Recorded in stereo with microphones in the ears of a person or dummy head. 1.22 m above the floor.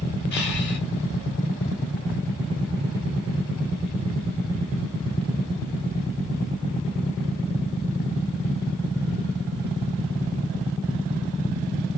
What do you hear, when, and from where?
0.3 s breathing: 55° left (ahead or behind), 1.5 m